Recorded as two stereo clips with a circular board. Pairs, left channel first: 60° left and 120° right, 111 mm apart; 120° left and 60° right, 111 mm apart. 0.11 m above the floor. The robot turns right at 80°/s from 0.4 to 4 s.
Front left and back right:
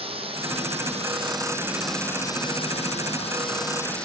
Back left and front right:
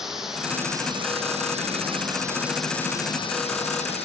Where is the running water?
145° right, 3 m; by 4.1 s 140° left, 3 m.